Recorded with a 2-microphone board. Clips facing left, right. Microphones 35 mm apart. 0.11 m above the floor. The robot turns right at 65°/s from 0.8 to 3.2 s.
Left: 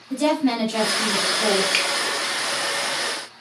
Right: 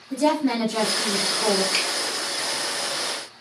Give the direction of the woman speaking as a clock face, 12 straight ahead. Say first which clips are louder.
Left 1 dB; 10 o'clock.